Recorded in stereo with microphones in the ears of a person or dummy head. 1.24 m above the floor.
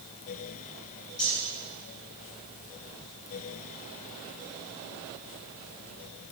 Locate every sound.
1.2 s cutlery clinking: 35° left (ahead or behind), 5 m